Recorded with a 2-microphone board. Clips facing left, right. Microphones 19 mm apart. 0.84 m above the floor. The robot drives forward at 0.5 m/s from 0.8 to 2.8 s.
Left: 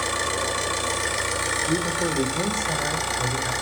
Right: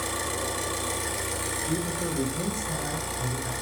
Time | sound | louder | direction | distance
0.0 | an engine running | left 5 dB | 40° left (ahead or behind) | 3.5 m
1.7 | a man speaking | left 6 dB | 65° left (ahead or behind) | 3 m